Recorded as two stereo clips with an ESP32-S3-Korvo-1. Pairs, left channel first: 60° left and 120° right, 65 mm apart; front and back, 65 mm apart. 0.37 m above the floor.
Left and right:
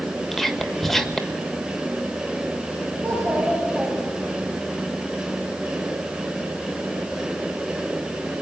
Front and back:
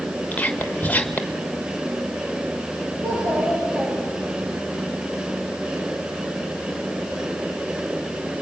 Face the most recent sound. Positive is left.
turn(degrees=170)